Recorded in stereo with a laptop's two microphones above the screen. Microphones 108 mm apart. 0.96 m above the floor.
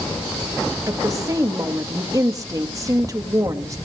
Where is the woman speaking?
30° right (ahead or behind), 1.8 m.